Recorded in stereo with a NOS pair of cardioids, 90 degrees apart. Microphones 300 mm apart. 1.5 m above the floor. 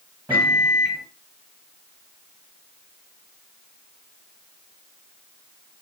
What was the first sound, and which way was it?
A microwave, 5° right.